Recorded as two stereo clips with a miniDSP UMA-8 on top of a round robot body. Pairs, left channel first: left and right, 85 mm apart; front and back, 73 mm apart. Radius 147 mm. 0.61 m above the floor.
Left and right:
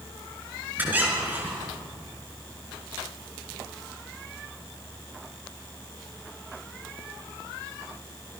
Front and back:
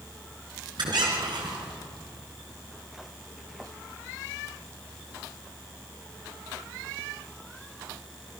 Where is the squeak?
160° right, 5.5 m.